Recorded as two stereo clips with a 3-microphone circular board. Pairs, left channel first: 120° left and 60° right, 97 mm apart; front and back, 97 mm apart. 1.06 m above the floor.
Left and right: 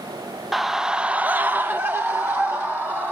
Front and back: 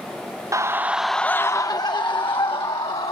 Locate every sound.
0.5 s a scream: 150° right, 0.7 m; by 3.1 s 10° left, 1.5 m